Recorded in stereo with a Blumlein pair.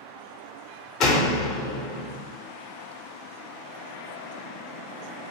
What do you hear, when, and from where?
1.0 s a door slam: 35° left, 0.6 m